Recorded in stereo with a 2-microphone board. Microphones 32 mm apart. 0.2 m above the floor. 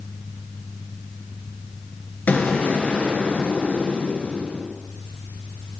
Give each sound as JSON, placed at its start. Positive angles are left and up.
{"t": 2.3, "sound": "an explosion", "side_deg": 65, "distance_m": 1.9}